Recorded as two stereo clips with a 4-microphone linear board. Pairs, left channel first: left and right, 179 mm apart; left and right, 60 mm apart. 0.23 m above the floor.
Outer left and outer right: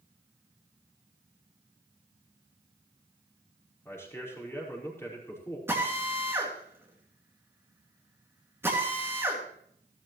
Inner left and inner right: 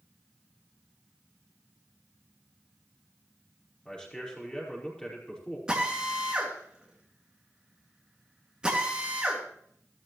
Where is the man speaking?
15° left (ahead or behind), 5.5 m.